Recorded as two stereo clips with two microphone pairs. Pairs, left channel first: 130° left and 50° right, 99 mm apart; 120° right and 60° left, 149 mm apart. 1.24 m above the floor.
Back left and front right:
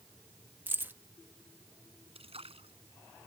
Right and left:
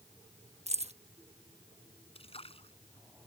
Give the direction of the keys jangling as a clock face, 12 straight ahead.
11 o'clock.